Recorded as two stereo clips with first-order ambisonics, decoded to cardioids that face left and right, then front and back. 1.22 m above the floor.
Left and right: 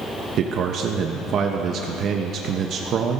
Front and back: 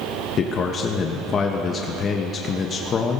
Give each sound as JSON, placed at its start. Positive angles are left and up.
{"t": 0.4, "sound": "a man speaking", "azimuth_deg": -50, "distance_m": 0.7}